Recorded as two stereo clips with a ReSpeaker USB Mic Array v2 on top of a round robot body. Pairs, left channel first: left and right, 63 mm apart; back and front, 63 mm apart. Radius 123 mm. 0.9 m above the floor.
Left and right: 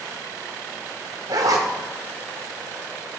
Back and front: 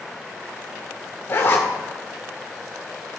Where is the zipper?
125° right, 0.8 m.